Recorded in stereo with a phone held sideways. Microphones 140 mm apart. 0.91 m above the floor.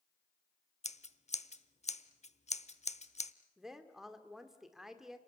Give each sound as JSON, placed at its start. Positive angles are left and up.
{"t": 0.8, "sound": "scissors", "side_deg": 55, "distance_m": 0.8}
{"t": 3.6, "sound": "a woman speaking", "side_deg": 0, "distance_m": 2.0}